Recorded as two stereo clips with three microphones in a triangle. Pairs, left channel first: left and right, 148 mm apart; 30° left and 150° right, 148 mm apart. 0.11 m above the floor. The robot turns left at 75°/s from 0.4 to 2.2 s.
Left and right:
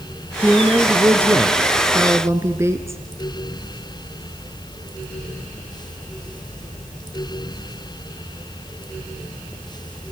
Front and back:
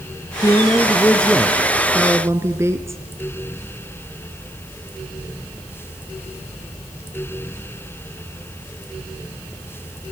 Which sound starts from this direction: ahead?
A woman speaking, at 0.4 s.